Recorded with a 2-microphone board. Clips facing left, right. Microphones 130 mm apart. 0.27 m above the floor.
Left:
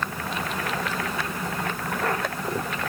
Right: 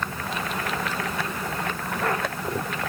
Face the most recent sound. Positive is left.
No sound to turn to.